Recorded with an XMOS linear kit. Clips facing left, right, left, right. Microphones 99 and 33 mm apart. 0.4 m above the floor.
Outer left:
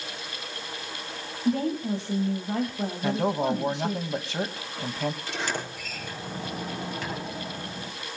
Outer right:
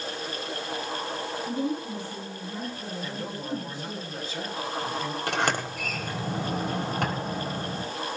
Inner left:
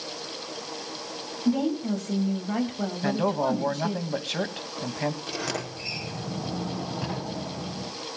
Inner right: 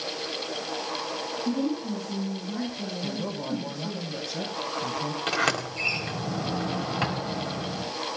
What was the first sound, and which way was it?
A woman speaking, 80° left.